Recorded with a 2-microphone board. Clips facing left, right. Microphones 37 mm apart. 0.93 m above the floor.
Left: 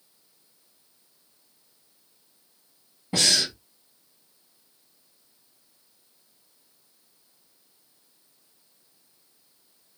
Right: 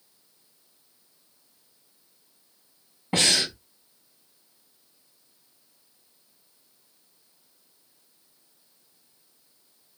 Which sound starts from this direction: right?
Breathing, at 3.1 s.